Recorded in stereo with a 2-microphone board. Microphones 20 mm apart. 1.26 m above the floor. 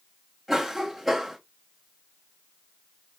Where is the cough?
15° right (ahead or behind), 1.0 m.